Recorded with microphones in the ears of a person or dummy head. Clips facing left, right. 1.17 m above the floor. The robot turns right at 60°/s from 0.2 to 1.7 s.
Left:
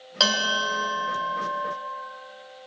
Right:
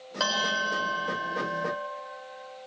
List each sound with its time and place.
0.2 s a bell: 45° left, 3 m; by 1.8 s 135° left, 3 m